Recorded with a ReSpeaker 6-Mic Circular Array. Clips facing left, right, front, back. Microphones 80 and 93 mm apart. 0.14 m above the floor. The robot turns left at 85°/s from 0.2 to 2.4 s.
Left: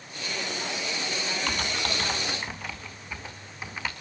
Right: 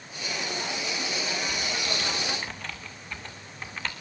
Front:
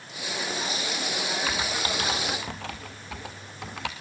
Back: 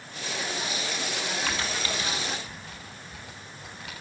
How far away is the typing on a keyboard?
About 2 m.